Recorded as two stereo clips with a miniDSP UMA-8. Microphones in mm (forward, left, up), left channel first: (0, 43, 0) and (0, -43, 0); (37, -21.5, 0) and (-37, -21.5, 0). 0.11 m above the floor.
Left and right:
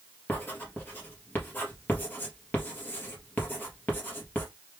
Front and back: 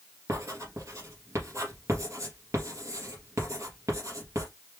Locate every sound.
0.3 s writing: 150° left, 2.5 m